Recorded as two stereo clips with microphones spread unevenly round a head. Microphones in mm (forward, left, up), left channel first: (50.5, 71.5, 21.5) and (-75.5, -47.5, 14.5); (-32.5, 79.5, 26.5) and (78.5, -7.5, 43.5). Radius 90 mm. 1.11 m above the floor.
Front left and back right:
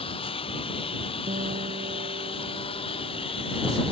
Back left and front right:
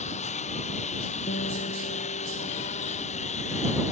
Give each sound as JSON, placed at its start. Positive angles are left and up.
{"t": 0.0, "sound": "a lawn mower", "azimuth_deg": 105}
{"t": 1.3, "sound": "a guitar", "azimuth_deg": 170}